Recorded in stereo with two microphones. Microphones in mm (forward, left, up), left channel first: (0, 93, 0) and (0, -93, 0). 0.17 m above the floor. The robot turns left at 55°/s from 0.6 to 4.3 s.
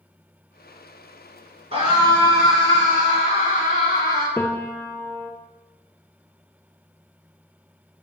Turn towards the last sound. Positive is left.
turn(degrees=15)  # may be behind; listen again after turning